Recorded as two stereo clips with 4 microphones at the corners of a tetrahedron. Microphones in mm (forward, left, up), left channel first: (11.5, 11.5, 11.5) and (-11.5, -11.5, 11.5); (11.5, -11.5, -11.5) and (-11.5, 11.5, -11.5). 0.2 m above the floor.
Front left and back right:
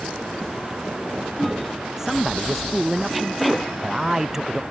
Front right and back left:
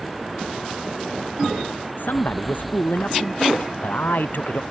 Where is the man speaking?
55° right.